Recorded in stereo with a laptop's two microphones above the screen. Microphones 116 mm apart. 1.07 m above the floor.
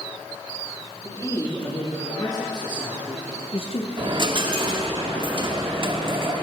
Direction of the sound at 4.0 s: 40° right (ahead or behind).